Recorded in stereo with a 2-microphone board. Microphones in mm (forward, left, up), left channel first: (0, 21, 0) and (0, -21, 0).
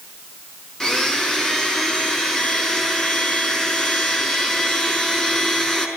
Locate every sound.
0.8 s a blender: 15° left (ahead or behind), 5 m